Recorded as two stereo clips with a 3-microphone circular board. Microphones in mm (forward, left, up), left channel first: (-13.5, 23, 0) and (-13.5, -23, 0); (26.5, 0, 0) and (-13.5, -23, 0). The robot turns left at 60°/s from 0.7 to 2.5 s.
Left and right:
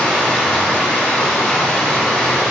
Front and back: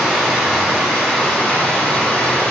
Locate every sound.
0.0 s running water: 120° left, 1.2 m; by 2.5 s 10° left, 1.2 m